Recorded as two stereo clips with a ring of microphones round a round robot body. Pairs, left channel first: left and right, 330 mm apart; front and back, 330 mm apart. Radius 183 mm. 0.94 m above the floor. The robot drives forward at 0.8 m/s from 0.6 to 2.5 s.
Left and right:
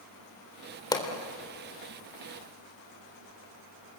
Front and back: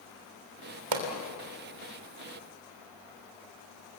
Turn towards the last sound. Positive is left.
turn(degrees=170)